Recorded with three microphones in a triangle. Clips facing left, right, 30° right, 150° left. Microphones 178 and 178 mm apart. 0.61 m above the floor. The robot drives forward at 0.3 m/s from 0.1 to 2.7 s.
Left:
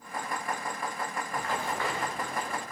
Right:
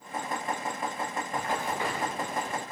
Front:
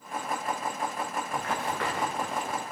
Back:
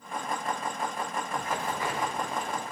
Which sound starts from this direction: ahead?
Running footsteps, at 1.3 s.